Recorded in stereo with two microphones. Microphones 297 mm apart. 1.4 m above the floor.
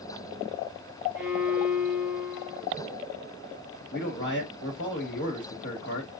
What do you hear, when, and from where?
1.1 s a violin: 30° right (ahead or behind), 3.5 m
3.9 s a man speaking: 40° left (ahead or behind), 1.7 m